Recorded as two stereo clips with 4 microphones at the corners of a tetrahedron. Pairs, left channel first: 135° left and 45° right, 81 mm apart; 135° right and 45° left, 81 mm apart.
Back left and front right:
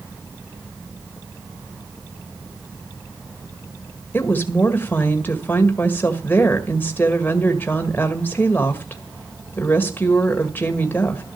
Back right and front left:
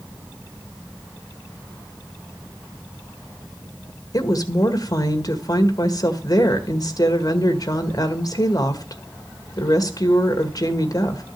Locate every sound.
4.1 s a woman speaking: 165° right, 1.6 m